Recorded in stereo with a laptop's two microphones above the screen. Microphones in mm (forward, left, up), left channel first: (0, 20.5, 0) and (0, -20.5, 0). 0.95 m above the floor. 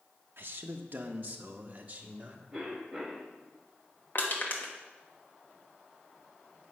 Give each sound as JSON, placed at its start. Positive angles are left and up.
{"t": 0.4, "sound": "a man speaking", "side_deg": -55, "distance_m": 0.7}
{"t": 2.5, "sound": "a cough", "side_deg": 0, "distance_m": 5.5}
{"t": 4.2, "sound": "crushing", "side_deg": 55, "distance_m": 1.7}